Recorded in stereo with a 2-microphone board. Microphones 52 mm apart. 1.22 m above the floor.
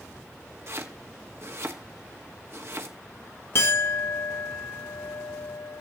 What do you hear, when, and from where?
0.7 s chopping: 55° right (ahead or behind), 1.5 m
3.5 s a clink: 50° left (ahead or behind), 1.1 m